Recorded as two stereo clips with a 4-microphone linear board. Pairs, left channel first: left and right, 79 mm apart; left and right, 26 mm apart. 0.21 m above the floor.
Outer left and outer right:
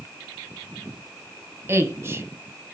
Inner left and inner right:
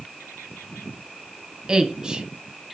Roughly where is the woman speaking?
Right.